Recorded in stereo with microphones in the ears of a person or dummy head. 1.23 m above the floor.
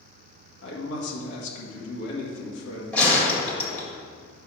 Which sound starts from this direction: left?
A man speaking, at 0.6 s.